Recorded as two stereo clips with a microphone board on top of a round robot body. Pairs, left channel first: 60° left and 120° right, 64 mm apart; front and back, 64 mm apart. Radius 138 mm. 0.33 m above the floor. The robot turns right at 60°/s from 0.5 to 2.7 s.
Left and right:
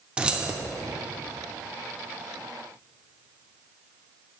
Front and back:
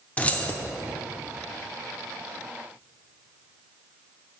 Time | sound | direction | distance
0.2 | keys jangling | 55° right | 0.9 m